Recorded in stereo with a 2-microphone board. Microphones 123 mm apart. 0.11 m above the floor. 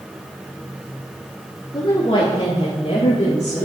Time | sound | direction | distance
1.7 | a woman speaking | 40° left (ahead or behind) | 2.0 m